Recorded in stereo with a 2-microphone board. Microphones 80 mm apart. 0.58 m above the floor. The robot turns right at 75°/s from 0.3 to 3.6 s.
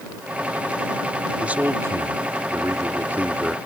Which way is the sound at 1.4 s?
165° right.